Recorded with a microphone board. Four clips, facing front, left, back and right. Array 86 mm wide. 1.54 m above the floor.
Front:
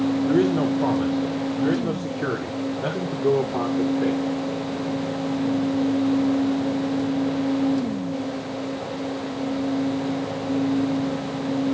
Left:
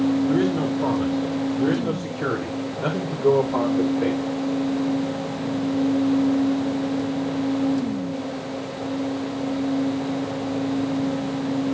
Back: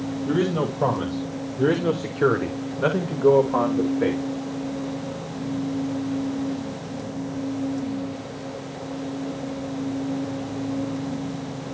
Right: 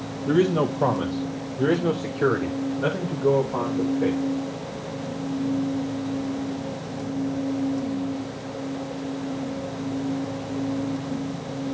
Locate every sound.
0.3 s a man speaking: 130° right, 2.5 m; by 4.2 s 165° left, 2.5 m